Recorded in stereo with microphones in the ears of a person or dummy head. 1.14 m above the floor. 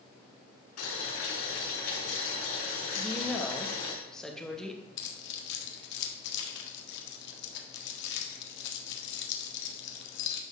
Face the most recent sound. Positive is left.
turn(degrees=70)  # may be behind; listen again after turning